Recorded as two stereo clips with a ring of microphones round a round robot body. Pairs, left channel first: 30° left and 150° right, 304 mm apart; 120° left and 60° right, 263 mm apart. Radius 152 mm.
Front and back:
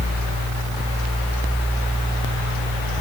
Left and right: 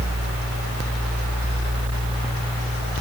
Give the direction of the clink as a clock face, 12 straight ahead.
No clink in this recording.